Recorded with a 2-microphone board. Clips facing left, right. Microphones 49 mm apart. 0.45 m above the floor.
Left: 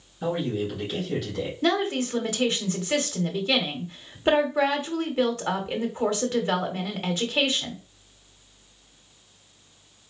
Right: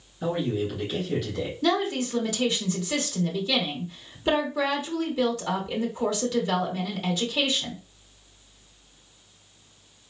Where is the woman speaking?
35° left (ahead or behind), 1.0 m.